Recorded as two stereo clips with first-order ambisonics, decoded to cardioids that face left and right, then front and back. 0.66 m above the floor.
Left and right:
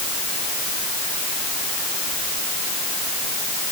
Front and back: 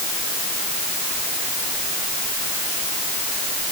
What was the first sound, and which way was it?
Only background noise.